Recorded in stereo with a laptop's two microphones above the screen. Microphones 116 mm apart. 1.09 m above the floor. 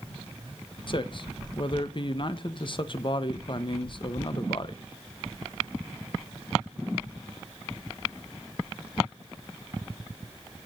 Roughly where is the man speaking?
Left.